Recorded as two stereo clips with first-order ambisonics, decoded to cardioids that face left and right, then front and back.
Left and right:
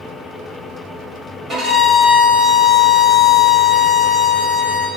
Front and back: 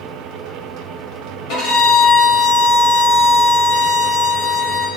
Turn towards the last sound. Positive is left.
turn(degrees=-15)